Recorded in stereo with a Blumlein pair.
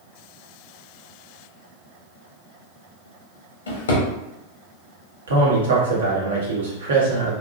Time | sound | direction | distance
3.7 | a drawer | 65° left | 0.9 m
5.3 | a man speaking | 65° right | 1.0 m